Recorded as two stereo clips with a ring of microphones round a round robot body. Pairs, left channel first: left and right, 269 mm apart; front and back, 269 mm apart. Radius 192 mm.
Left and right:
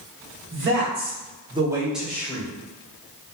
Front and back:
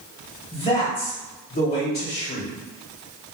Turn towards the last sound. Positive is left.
turn(degrees=25)